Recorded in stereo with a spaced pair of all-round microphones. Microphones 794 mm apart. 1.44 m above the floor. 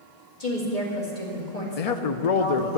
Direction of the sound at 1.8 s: 55° left (ahead or behind).